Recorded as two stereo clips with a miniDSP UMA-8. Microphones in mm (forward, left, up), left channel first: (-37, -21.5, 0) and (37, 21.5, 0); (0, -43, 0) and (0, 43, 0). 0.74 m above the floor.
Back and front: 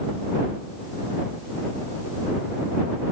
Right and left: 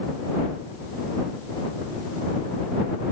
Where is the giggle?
I don't hear a giggle.